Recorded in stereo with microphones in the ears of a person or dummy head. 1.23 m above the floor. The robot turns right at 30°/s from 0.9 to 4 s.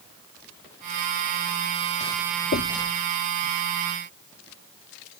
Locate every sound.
2.5 s knocking: 60° left (ahead or behind); by 2.9 s 70° left (ahead or behind)